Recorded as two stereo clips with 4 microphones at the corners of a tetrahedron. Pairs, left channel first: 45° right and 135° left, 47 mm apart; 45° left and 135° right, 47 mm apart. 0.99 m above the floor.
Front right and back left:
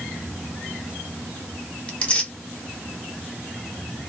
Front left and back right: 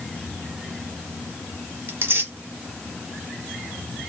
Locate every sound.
1.9 s tearing paper: 105° right, 1.2 m